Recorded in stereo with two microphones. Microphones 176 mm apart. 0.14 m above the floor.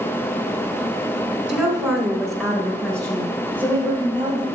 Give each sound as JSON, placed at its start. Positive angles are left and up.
{"t": 1.5, "sound": "a woman speaking", "side_deg": -5, "distance_m": 1.1}